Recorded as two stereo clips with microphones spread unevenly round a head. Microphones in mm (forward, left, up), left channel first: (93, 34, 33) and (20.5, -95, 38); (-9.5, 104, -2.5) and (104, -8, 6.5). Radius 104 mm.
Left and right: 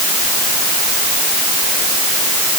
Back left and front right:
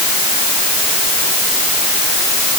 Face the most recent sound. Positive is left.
No sound to turn to.